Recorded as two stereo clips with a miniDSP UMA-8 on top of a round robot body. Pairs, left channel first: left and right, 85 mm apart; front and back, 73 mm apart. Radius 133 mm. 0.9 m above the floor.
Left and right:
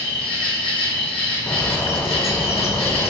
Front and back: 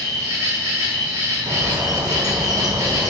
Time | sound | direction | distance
0.0 | an insect | 120° left | 0.8 m
1.5 | a bird | 150° left | 0.5 m